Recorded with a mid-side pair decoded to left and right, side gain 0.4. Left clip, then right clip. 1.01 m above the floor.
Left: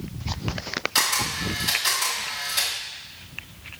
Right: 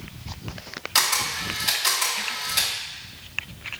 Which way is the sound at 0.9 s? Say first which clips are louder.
Right 2 dB; 30° right.